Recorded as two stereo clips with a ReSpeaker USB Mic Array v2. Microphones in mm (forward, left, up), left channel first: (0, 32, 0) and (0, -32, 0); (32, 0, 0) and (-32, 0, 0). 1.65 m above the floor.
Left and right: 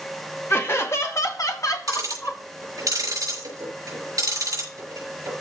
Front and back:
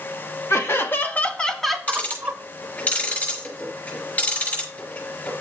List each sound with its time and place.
0.5 s laughter: 40° left, 1.6 m; by 2.4 s 125° left, 1.2 m
1.9 s ticking: 65° right, 6 m